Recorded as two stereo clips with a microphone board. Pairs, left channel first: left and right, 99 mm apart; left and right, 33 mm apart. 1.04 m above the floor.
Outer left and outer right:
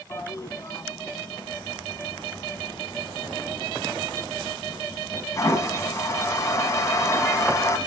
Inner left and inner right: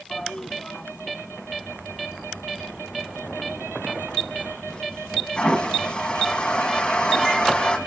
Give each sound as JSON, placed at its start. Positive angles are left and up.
{"t": 0.1, "sound": "a toilet flushing", "side_deg": 35, "distance_m": 1.8}